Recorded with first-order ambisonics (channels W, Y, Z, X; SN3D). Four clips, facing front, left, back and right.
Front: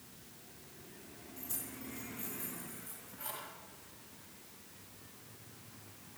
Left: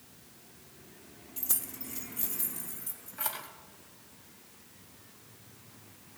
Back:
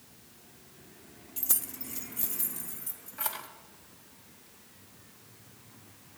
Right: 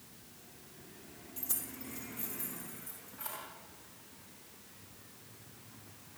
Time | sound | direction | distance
1.4 | keys jangling | 160° left | 0.8 m